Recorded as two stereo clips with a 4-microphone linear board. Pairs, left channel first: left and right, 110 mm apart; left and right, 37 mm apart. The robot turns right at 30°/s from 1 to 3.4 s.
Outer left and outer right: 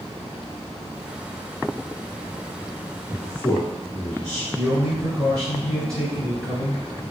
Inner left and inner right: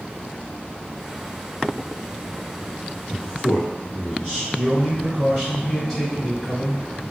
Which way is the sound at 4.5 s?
5° left (ahead or behind).